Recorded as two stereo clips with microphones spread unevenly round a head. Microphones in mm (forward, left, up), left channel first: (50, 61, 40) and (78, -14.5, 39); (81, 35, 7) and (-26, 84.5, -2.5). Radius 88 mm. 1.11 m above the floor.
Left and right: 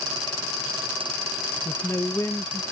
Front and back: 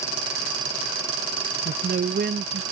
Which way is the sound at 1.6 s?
175° right.